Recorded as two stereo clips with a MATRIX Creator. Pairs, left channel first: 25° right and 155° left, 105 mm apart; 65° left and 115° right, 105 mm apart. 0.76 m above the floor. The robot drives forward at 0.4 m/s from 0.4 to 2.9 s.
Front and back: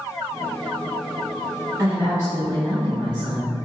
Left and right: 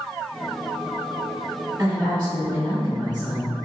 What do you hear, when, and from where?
1.8 s a woman speaking: 160° right, 1.8 m; by 3.5 s 165° right, 2 m